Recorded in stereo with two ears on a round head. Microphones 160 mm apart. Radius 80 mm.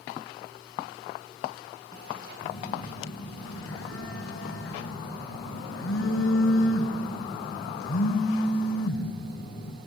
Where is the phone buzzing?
85° left, 4.5 m.